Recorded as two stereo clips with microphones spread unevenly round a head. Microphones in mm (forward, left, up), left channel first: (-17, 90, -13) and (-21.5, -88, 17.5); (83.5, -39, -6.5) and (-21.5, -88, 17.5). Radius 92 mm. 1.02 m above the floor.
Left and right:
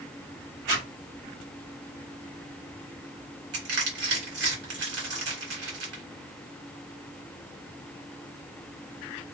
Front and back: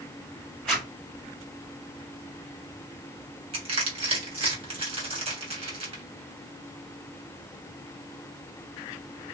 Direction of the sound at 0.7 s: 55° right.